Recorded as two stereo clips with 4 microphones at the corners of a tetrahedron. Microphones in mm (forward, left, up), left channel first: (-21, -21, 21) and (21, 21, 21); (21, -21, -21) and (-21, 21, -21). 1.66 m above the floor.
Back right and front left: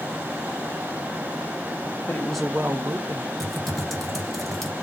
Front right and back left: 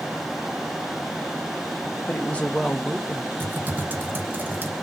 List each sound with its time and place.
2.0 s a woman speaking: 100° right, 0.7 m; by 3.3 s 55° left, 1.2 m
3.4 s typing on a keyboard: 140° left, 0.8 m